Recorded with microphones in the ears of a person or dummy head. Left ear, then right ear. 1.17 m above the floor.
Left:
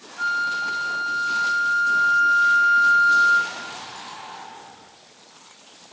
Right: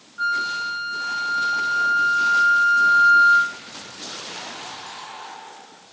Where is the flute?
Centre (ahead or behind), 0.8 m.